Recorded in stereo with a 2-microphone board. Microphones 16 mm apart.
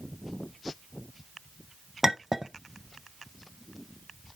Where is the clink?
20° right (ahead or behind), 0.6 m.